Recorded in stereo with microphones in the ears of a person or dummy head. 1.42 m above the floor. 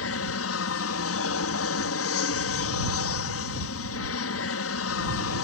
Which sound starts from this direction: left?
An aircraft, at 0.0 s.